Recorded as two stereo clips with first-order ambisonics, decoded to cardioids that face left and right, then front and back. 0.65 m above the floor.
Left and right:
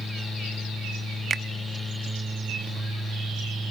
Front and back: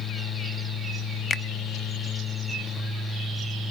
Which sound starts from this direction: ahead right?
A finger snap, at 1.3 s.